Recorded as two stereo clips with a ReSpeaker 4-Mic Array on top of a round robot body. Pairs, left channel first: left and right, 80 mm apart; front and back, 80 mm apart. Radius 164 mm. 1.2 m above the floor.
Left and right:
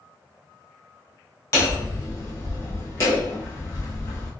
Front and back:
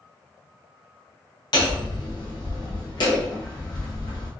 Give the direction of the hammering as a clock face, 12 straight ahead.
11 o'clock.